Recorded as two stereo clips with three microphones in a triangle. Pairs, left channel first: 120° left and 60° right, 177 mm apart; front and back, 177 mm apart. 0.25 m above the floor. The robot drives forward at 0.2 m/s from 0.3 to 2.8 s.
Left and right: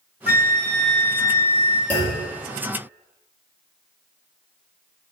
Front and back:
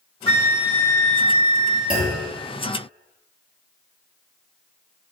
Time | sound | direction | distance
0.3 | a flute | 70° right | 1.1 m
1.9 | a clunk | 160° right | 1.4 m